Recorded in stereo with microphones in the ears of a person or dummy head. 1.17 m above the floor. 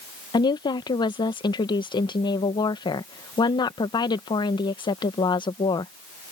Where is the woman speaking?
25° left (ahead or behind).